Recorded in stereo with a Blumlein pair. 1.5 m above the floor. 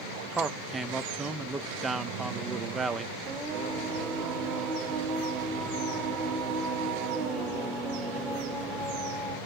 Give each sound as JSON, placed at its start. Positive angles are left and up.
{"t": 0.3, "sound": "a man speaking", "azimuth_deg": -15, "distance_m": 0.5}
{"t": 3.2, "sound": "singing", "azimuth_deg": -25, "distance_m": 1.9}